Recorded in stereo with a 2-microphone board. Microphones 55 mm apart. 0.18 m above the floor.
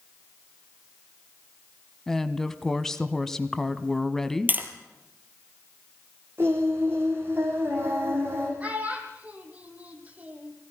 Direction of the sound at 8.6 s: 25° right (ahead or behind).